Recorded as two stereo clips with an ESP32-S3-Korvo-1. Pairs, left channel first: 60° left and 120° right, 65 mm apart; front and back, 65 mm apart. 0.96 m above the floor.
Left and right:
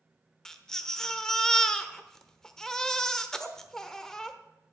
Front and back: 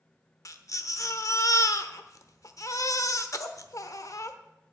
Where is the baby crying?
20° right, 1.0 m.